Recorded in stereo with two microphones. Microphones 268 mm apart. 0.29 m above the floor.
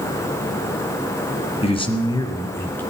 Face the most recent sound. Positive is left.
turn(degrees=10)  # may be behind; listen again after turning